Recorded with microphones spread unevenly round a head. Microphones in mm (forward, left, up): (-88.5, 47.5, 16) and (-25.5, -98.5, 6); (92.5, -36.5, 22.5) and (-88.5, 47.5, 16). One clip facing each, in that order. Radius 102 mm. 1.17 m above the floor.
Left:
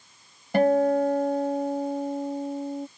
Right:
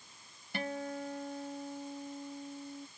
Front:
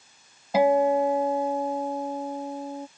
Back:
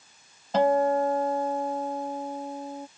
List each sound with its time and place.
0.5 s a guitar: 55° left